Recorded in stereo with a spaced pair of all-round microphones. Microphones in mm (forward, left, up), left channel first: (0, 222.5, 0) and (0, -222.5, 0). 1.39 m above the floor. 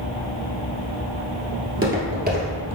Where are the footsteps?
30° right (ahead or behind), 1.6 m; by 2.8 s 10° right (ahead or behind), 1.5 m.